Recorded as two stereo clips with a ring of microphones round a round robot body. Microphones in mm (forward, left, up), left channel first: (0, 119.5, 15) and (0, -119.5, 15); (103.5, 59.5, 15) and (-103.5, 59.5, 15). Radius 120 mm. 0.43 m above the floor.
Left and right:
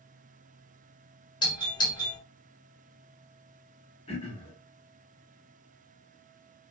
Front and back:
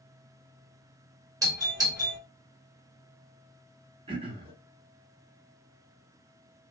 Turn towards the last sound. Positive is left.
turn(degrees=135)